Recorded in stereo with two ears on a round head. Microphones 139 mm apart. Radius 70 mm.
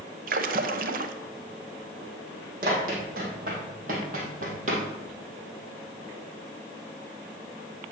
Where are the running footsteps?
65° right (ahead or behind), 4 m; by 4.8 s 55° right (ahead or behind), 3 m.